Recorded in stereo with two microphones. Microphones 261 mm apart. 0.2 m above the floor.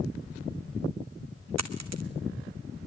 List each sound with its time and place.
1.6 s a dropped coin: 80° right, 1.0 m